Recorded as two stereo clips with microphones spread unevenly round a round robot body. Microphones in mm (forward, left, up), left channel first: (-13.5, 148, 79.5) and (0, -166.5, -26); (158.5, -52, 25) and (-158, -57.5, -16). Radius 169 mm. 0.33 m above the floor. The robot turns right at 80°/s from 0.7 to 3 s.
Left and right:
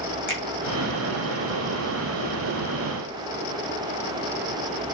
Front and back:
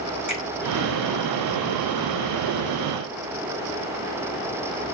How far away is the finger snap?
About 1.3 m.